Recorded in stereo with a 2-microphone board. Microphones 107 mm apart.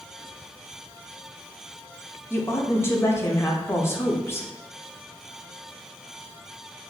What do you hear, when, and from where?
2.3 s a woman speaking: 25° left (ahead or behind), 0.6 m